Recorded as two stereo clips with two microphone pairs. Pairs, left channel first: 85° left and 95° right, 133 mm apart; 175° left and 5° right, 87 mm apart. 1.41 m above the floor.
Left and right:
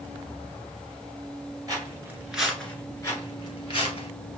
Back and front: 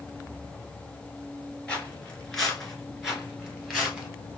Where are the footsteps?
120° right, 1.5 m; by 4.1 s 70° left, 2.0 m.